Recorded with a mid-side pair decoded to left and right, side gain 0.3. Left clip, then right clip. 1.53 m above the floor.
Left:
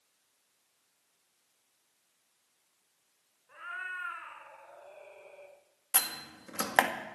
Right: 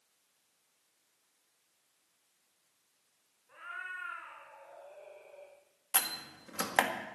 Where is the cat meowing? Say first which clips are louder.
Left 3 dB; 35° left, 4.5 m; by 5.6 s 80° left, 3.5 m.